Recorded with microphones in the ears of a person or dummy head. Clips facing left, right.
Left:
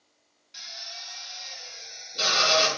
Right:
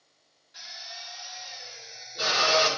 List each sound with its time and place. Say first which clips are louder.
0.5 s a drill: even; 40° left (ahead or behind), 5 m